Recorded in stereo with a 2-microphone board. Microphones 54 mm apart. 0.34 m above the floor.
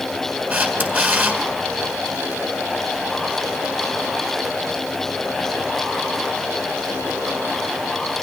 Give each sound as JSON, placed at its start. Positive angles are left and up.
{"t": 0.5, "sound": "a camera shutter", "side_deg": -30, "distance_m": 4.5}